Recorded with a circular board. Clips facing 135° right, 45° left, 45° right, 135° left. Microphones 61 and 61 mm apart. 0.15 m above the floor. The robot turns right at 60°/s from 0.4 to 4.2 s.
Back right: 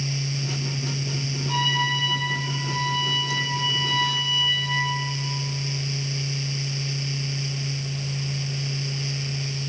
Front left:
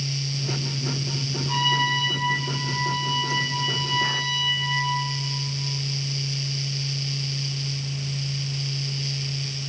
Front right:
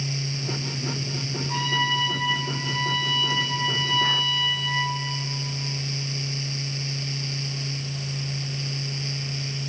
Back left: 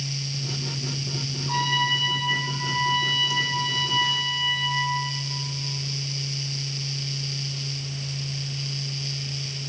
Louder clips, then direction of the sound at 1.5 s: Front left 1 dB, back left 1 dB; 125° left.